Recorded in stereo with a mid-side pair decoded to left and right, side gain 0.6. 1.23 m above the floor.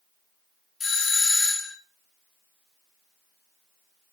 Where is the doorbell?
40° left, 1.5 m.